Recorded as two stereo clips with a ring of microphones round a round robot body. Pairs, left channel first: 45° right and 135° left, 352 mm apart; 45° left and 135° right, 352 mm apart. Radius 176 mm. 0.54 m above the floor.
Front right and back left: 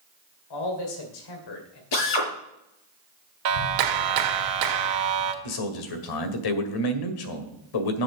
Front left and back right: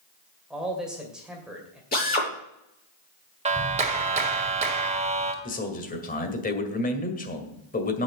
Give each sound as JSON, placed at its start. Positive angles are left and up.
{"t": 0.5, "sound": "a man speaking", "azimuth_deg": -45, "distance_m": 2.5}
{"t": 1.9, "sound": "a drill", "azimuth_deg": -20, "distance_m": 5.5}
{"t": 3.5, "sound": "a clap", "azimuth_deg": 155, "distance_m": 1.6}
{"t": 5.4, "sound": "a man speaking", "azimuth_deg": -25, "distance_m": 1.9}